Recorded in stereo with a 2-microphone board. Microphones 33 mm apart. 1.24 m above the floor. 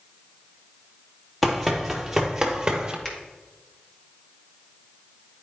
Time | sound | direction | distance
1.4 | running footsteps | centre (ahead or behind) | 1.3 m
3.0 | a finger snap | 5° left (ahead or behind) | 1.8 m